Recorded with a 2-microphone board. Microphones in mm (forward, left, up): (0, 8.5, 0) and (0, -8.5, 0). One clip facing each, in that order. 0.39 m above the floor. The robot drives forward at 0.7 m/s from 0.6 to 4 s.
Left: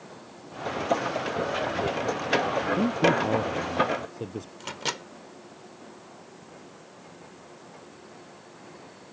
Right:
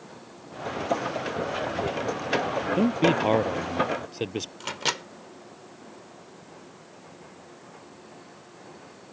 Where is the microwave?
20° right (ahead or behind).